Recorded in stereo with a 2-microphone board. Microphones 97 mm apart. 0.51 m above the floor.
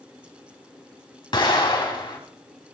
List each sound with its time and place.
1.3 s an explosion: 60° left (ahead or behind), 3.5 m